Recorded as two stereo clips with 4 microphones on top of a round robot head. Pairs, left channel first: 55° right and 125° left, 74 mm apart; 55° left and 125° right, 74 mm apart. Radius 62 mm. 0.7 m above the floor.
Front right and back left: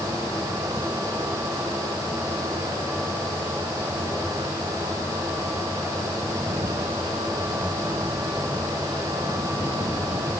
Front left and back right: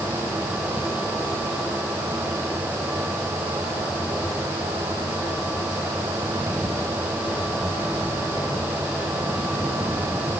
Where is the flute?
No flute in this recording.